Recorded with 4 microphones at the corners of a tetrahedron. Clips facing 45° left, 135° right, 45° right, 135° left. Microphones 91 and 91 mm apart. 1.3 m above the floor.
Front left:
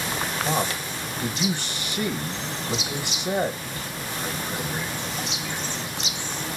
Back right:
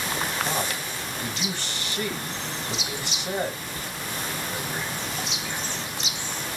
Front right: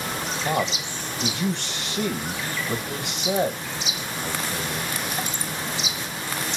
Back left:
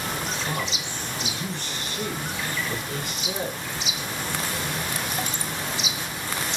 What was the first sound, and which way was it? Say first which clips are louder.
A man speaking: front left 3 dB, front right 5 dB; 30° right.